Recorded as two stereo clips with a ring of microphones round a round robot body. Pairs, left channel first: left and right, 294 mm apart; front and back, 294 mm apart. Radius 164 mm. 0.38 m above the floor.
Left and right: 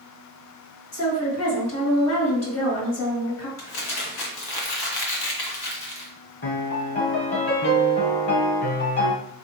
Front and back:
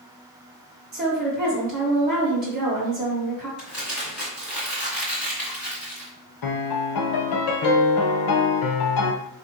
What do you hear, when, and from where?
0.9 s a woman speaking: 120° left, 2 m
3.6 s crumpling: 95° left, 1.9 m
6.4 s a piano: 30° left, 0.6 m